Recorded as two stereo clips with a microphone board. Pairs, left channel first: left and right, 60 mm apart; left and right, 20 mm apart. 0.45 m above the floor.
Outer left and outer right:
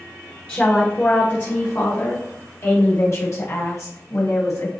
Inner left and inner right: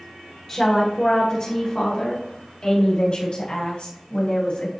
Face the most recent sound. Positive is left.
turn(degrees=70)  # may be behind; listen again after turning